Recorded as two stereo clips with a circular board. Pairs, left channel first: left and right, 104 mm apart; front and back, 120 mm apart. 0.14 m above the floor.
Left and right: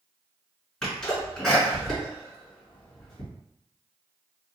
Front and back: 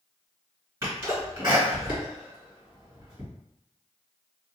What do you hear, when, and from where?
0.8 s a sneeze: 160° left, 1.9 m